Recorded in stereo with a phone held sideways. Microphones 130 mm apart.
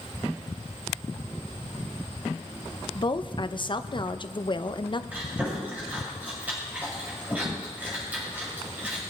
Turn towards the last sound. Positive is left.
turn(degrees=-10)  # may be behind; listen again after turning